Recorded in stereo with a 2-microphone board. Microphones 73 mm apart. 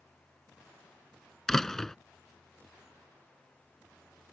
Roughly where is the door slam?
Centre.